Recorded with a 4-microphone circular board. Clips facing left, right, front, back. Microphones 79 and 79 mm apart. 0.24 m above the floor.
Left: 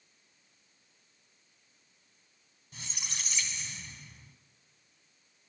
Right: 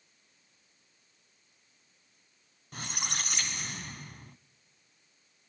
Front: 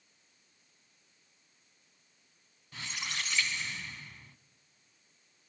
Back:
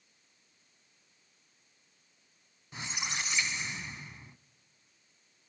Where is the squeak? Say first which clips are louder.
Right 7 dB, back 2 dB; 110° right, 0.6 m.